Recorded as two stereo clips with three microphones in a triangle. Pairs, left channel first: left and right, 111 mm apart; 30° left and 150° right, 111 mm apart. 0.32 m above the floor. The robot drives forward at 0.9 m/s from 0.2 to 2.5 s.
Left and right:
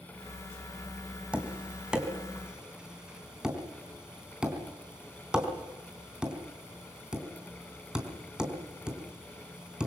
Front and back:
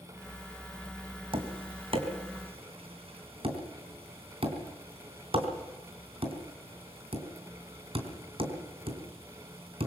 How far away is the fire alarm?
No fire alarm in this recording.